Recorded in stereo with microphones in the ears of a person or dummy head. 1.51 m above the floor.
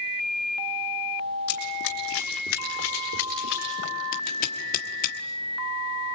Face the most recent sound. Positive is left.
turn(degrees=40)  # may be behind; listen again after turning